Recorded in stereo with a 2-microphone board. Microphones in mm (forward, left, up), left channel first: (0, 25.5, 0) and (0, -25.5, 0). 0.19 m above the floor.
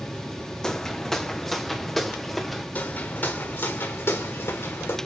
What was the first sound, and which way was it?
Footsteps, 15° left (ahead or behind).